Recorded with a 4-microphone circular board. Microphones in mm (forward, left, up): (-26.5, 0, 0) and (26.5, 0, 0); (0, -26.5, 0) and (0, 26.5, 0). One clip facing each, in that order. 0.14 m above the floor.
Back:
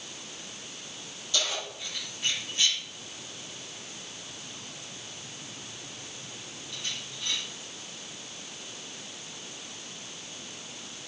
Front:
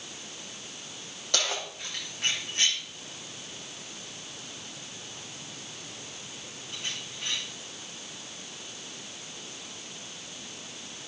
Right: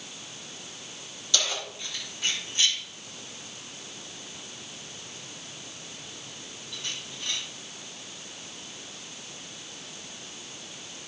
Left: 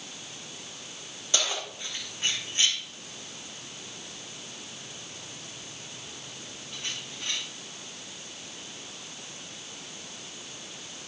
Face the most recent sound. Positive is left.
turn(degrees=45)